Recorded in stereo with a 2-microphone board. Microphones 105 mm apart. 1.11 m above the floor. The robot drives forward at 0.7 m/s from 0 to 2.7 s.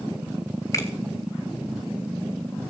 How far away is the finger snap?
About 4 m.